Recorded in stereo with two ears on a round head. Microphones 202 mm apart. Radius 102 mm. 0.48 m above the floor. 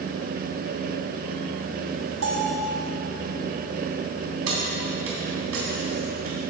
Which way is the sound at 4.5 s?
75° right (ahead or behind).